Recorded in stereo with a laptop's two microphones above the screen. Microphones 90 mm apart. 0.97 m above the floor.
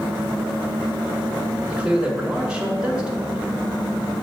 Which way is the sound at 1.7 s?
10° right (ahead or behind).